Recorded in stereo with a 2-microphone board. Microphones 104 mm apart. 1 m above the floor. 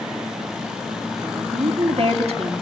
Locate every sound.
1.2 s a woman speaking: 75° right (ahead or behind), 2 m